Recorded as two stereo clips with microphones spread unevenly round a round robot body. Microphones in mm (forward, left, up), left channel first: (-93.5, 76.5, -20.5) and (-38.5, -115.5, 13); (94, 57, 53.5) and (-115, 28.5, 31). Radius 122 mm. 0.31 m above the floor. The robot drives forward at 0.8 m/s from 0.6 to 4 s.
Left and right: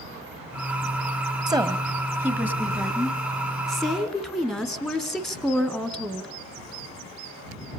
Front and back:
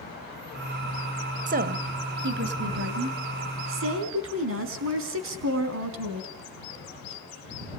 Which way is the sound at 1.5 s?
145° right.